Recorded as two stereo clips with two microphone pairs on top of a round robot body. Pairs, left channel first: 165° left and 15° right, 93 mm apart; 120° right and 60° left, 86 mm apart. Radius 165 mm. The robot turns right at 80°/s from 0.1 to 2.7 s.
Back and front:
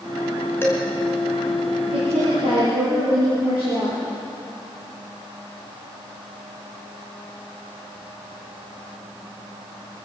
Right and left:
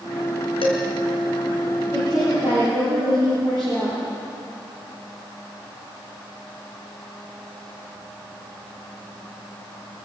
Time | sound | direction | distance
0.6 | dishes clattering | 130° right | 5 m
1.9 | a woman speaking | 45° right | 8.5 m